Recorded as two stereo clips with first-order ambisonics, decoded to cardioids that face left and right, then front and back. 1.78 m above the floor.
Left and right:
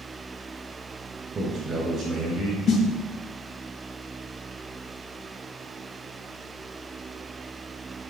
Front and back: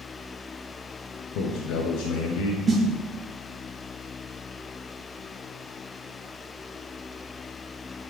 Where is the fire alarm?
I don't hear a fire alarm.